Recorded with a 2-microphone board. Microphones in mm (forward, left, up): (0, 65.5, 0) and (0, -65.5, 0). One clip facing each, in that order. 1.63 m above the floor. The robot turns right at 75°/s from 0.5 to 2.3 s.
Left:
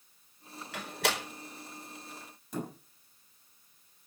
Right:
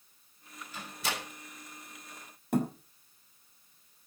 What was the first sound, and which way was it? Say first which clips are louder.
A door slam: left 5 dB; 75° left (ahead or behind).